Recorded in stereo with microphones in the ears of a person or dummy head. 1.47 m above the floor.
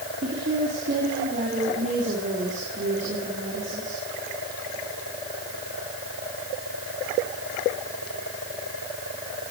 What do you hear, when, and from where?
0.2 s a woman speaking: 40° right (ahead or behind), 4 m